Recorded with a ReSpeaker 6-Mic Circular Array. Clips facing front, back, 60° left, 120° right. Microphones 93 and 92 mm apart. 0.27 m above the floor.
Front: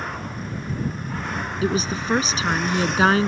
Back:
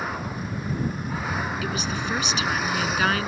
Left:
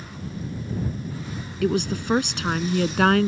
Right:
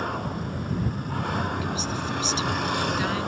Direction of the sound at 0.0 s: 95° right.